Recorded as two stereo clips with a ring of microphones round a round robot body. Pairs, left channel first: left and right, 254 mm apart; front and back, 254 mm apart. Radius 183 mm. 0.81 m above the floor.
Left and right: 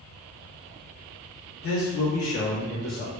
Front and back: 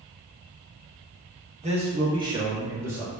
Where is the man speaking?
115° left, 1.2 m; by 3.1 s 100° left, 1.9 m.